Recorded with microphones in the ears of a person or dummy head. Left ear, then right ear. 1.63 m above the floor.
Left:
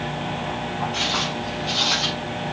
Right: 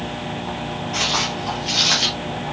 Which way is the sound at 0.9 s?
35° right (ahead or behind).